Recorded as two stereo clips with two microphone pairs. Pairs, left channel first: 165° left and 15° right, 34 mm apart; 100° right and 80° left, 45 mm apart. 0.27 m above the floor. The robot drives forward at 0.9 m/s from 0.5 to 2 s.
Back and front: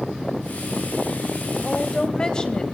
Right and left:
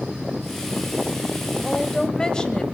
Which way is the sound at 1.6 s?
135° right.